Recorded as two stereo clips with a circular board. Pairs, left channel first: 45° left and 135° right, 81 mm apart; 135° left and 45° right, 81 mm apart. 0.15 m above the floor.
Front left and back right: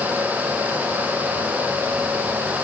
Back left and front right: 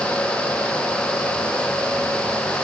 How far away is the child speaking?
No child speaking in this recording.